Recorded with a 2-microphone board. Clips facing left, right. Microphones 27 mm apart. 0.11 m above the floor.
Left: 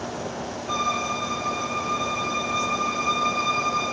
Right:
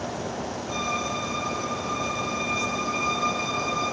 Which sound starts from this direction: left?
A violin, at 0.7 s.